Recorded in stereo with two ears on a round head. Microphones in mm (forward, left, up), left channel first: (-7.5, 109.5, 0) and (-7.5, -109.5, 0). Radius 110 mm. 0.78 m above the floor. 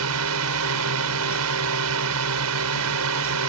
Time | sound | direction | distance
0.0 | a drone | 70° right (ahead or behind) | ?